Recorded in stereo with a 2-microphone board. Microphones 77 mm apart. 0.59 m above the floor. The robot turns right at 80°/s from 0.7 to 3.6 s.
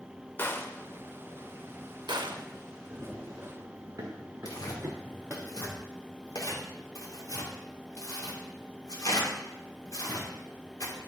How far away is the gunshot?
About 0.7 m.